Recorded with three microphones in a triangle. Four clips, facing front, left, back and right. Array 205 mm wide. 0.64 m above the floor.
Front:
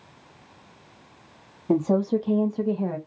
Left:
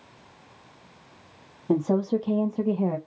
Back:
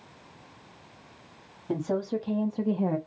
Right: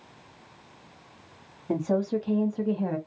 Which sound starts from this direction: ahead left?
A woman speaking, at 1.7 s.